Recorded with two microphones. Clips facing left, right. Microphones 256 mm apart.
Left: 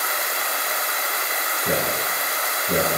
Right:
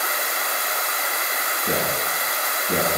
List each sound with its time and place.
1.6 s a man speaking: 60° left (ahead or behind), 2 m